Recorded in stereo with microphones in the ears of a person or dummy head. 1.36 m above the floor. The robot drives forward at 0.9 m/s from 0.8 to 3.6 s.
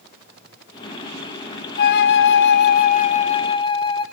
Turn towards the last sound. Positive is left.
turn(degrees=30)  # may be behind; listen again after turning